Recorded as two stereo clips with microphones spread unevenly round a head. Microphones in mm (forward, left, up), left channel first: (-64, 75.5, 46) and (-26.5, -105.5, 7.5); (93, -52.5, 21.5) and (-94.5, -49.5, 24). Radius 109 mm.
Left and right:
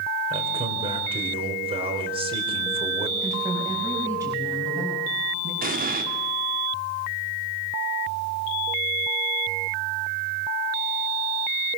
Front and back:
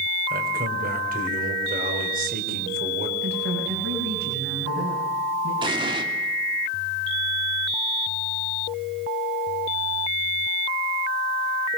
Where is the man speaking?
140° right, 3.5 m.